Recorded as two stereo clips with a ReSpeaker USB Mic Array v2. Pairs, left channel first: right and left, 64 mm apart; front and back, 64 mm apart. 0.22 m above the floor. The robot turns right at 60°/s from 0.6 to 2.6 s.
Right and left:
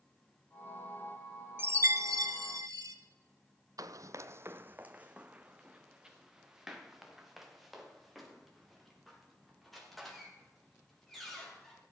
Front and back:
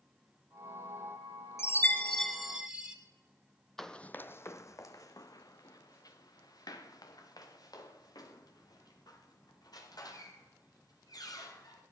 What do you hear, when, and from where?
1.6 s a chime: 40° left, 1.7 m; by 3.0 s 100° left, 1.7 m
3.8 s running footsteps: 85° left, 0.5 m; by 11.8 s straight ahead, 5.5 m